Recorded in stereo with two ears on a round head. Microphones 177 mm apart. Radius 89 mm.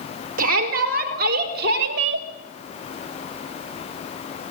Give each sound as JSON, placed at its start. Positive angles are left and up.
{"t": 0.4, "sound": "a shout", "side_deg": -45, "distance_m": 5.5}